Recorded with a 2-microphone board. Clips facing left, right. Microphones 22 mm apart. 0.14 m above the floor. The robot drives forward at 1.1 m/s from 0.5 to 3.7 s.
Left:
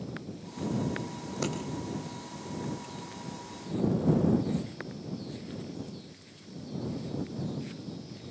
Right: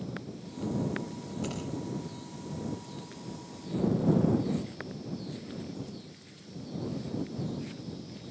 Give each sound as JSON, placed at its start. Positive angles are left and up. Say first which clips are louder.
{"t": 1.2, "sound": "scissors", "louder": "left 6 dB", "side_deg": 70, "distance_m": 5.5}